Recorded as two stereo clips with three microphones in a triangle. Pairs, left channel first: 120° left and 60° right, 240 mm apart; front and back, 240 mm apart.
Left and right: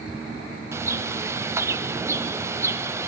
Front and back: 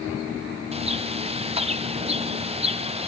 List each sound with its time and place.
0.7 s a bird: 135° right, 0.6 m